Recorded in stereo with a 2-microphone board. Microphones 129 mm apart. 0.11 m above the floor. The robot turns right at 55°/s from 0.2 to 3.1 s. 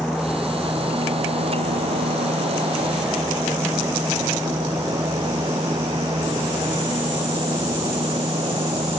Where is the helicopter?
Centre (ahead or behind); by 9.0 s 45° right (ahead or behind).